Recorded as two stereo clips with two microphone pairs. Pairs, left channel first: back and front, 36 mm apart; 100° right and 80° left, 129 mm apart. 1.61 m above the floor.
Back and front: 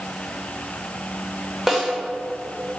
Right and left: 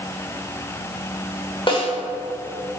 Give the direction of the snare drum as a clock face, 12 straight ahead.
3 o'clock.